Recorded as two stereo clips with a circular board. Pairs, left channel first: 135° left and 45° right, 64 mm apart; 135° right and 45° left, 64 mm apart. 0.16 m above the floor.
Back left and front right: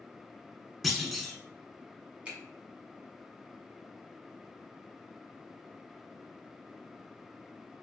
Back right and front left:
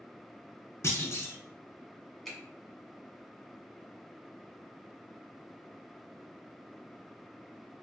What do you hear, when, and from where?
0.8 s a clunk: 135° right, 0.7 m
2.2 s a finger snap: 50° right, 1.2 m